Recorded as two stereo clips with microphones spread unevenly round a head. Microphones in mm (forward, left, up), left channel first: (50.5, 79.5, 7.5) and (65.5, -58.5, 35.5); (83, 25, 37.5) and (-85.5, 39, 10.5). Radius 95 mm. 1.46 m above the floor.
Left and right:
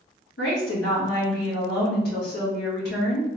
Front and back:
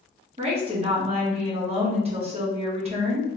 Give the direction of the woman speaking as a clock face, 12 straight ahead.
8 o'clock.